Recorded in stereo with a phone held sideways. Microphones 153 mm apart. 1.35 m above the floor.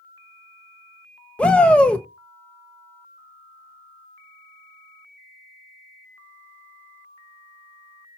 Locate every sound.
1.4 s a shout: 5° left (ahead or behind), 1.2 m